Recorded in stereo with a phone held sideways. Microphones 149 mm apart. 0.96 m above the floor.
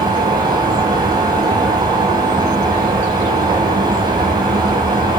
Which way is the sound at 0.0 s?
30° right (ahead or behind).